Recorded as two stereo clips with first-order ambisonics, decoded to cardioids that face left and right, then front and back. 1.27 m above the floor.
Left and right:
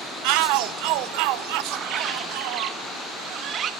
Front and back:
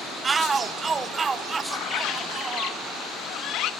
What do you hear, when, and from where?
0.2 s a shout: 105° right, 1.1 m
1.7 s a bird: 35° right, 1.0 m